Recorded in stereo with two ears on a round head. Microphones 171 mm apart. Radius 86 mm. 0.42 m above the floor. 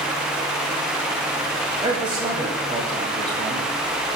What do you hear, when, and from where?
1.8 s a man speaking: 25° right (ahead or behind), 1.8 m